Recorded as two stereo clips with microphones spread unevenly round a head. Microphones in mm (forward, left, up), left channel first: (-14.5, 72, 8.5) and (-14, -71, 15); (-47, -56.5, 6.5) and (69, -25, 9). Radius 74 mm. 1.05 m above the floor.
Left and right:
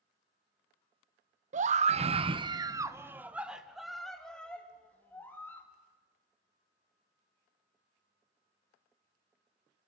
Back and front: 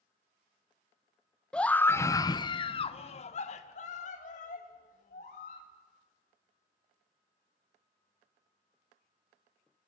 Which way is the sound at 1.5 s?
85° right.